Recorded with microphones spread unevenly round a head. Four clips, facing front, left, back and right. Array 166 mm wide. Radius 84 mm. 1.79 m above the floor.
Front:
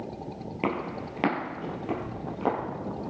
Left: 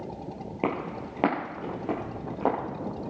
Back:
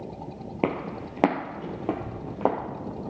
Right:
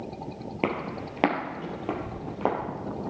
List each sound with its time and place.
0.6 s footsteps: 170° right, 2.5 m; by 2.5 s 175° right, 3.5 m